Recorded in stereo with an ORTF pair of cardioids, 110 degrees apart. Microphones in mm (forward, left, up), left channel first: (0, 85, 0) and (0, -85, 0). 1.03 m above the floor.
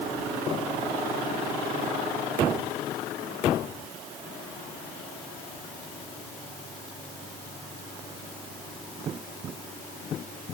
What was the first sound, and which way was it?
Only background noise.